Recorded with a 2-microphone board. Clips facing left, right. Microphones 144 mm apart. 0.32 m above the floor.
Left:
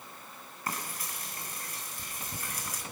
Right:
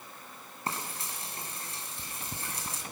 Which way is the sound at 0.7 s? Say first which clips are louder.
Right 1 dB; 30° right (ahead or behind).